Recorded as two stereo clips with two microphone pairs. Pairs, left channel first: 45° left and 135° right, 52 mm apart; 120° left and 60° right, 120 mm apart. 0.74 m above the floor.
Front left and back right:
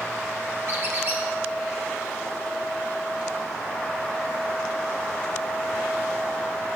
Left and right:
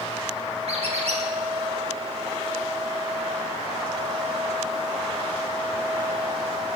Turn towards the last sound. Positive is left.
turn(degrees=-85)